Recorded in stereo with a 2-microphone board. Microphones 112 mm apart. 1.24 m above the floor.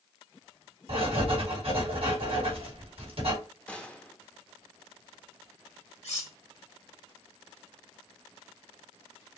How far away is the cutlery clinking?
About 1.7 m.